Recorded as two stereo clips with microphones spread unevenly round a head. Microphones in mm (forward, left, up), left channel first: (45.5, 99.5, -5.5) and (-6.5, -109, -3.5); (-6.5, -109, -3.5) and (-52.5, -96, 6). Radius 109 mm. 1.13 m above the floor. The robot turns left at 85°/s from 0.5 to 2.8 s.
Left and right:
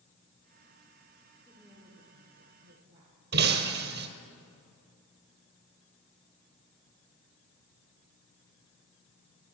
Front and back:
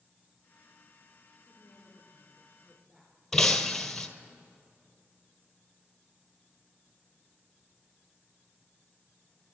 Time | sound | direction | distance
1.4 | a woman speaking | 5° right | 4 m
3.3 | breaking glass | 110° right | 1.7 m